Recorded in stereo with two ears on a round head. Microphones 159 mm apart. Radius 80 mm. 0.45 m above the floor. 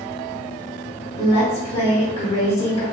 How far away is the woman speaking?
About 1.2 m.